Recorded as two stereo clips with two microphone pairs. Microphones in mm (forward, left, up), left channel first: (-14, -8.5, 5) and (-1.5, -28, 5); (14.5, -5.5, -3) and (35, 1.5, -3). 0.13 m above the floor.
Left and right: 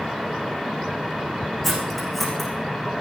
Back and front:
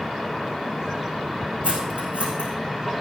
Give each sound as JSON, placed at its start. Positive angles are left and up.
{"t": 1.6, "sound": "cutlery clinking", "azimuth_deg": 40, "distance_m": 4.5}